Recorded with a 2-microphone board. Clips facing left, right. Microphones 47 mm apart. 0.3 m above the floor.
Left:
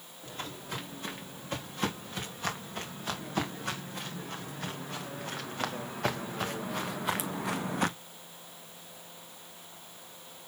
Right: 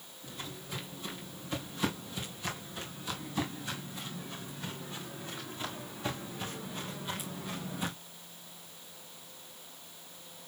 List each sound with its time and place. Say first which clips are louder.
0.2 s footsteps: left 3 dB; 50° left (ahead or behind), 6.5 m; by 7.9 s 60° left (ahead or behind), 1.0 m